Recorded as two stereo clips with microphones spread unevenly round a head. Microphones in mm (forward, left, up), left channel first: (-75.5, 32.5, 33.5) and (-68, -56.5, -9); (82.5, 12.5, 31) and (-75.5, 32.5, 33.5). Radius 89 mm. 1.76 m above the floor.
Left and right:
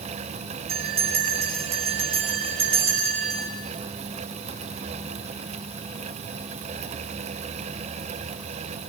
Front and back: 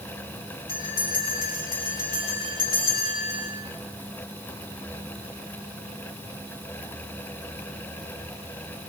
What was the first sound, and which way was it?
A bell, 75° right.